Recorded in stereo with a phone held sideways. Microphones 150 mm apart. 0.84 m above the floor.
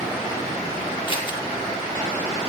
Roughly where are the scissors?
Left.